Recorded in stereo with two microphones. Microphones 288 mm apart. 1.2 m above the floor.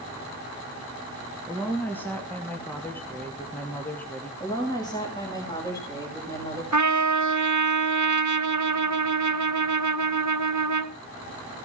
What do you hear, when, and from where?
1.5 s a woman speaking: 5° left (ahead or behind), 2 m
4.4 s a woman speaking: 15° left (ahead or behind), 6 m
6.7 s a trumpet: 70° right (ahead or behind), 1.1 m